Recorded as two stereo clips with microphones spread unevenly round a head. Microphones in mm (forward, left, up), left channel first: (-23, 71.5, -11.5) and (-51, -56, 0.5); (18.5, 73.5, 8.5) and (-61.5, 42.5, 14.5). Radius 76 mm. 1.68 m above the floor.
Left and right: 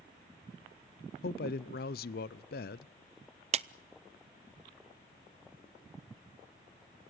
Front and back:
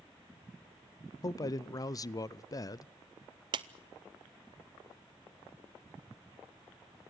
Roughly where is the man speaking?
Left.